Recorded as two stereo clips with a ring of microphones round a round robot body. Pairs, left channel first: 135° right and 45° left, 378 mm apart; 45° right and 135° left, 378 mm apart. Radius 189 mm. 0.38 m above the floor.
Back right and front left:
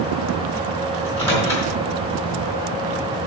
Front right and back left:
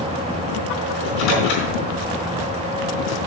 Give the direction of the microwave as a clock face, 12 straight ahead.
2 o'clock.